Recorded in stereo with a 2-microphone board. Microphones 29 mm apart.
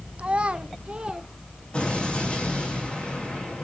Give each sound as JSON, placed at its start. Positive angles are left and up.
{"t": 0.2, "sound": "a child speaking", "side_deg": -45, "distance_m": 0.7}
{"t": 1.7, "sound": "an explosion", "side_deg": 40, "distance_m": 5.0}